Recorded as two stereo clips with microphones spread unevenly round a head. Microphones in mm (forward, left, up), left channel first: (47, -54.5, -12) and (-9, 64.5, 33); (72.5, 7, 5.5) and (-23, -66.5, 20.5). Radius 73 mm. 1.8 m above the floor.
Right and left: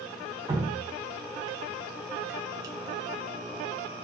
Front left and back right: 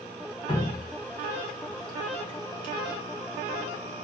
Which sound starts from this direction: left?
Dripping, at 0.5 s.